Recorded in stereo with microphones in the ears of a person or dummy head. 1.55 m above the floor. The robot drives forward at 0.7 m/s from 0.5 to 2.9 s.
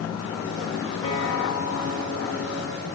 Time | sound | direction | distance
1.0 | a guitar | 90° left | 4.5 m